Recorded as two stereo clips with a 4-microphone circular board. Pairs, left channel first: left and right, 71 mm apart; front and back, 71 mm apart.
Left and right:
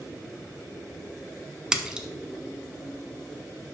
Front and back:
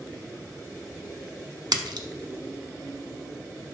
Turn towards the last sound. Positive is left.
turn(degrees=-170)